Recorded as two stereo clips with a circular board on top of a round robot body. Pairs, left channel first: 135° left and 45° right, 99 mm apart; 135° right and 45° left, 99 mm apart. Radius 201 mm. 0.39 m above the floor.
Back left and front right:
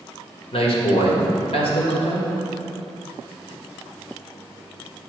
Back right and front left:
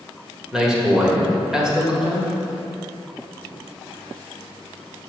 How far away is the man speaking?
About 2.5 m.